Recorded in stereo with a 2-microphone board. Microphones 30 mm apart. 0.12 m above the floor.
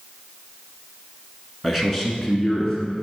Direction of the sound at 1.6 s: 5° right (ahead or behind).